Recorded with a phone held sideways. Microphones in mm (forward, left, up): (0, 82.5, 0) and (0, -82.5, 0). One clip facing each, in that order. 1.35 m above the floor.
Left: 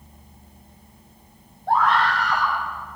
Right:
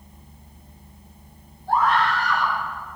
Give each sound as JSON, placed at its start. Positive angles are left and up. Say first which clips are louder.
{"t": 1.7, "sound": "a scream", "louder": "left 1 dB", "side_deg": 70, "distance_m": 9.0}